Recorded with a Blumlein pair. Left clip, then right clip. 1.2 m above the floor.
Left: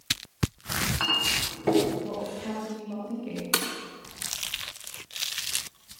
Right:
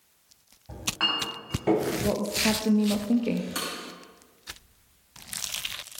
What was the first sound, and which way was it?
A clink, 5° left.